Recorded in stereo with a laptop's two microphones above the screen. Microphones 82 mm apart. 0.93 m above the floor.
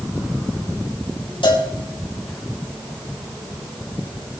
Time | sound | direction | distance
1.4 | a cowbell | 80° left | 3.5 m